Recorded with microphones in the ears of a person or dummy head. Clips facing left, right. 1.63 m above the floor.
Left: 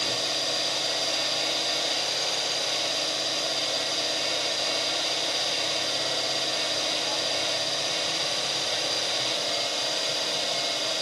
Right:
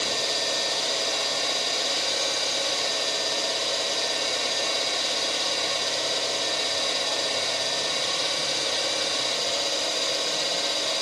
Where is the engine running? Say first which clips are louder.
Right 2 dB; 70° right (ahead or behind), 1.2 m.